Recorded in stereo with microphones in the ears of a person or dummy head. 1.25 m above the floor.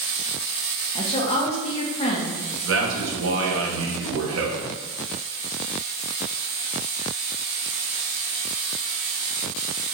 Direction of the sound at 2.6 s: 80° right.